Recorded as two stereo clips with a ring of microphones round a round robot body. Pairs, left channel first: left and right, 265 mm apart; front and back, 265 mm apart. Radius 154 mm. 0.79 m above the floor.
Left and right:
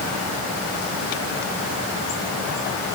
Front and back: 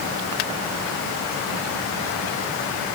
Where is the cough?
No cough in this recording.